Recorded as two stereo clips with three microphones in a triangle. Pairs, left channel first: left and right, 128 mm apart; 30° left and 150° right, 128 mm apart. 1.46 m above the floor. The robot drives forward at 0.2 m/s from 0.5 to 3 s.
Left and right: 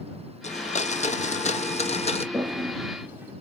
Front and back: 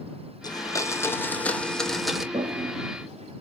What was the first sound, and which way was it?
A blender, 80° left.